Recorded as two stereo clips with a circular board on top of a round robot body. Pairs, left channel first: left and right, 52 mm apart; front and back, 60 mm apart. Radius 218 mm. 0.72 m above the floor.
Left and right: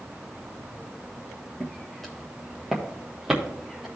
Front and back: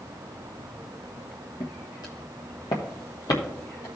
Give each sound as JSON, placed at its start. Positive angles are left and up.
{"t": 1.6, "sound": "footsteps", "azimuth_deg": 15, "distance_m": 0.8}